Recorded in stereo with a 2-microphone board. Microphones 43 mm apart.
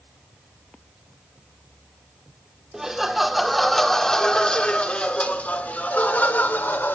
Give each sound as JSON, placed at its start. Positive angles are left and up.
{"t": 2.7, "sound": "laughter", "side_deg": -10, "distance_m": 1.7}